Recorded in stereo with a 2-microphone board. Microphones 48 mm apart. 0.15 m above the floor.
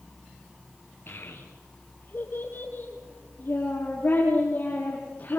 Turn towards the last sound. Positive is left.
turn(degrees=40)  # may be behind; listen again after turning